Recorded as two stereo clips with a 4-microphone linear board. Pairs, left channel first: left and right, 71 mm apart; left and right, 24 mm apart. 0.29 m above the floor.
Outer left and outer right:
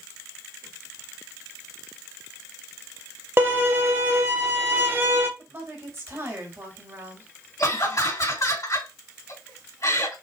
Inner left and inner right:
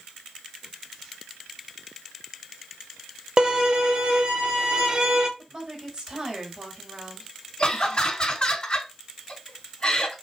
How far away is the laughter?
About 2.5 m.